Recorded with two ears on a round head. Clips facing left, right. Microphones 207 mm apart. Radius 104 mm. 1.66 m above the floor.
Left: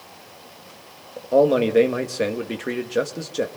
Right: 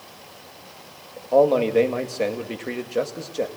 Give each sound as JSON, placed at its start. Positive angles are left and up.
{"t": 1.3, "sound": "a man speaking", "side_deg": 20, "distance_m": 2.0}